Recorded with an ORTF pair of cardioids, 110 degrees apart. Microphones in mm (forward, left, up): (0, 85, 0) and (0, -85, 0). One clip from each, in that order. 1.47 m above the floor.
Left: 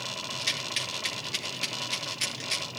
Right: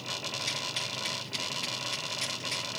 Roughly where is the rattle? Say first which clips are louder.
Left 5 dB; ahead left.